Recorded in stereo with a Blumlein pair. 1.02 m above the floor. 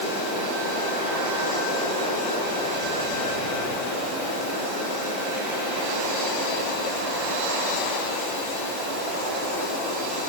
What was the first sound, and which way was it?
Only background noise.